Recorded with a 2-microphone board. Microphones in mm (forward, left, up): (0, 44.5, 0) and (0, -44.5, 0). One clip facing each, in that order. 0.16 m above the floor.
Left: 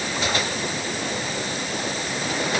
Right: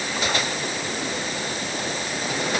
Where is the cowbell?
I don't hear a cowbell.